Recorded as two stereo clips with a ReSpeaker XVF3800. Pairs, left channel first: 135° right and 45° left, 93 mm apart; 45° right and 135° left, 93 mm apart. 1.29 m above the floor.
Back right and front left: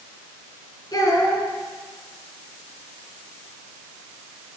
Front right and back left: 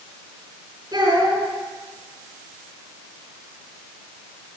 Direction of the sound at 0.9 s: 175° right.